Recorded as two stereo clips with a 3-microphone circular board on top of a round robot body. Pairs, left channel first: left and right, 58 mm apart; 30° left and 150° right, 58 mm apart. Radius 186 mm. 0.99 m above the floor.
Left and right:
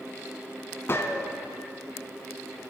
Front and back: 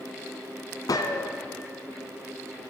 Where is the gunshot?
40° left, 0.6 m.